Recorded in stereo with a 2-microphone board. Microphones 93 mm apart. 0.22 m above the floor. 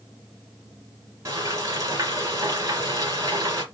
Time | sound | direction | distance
1.2 | frying | 35° right (ahead or behind) | 1.7 m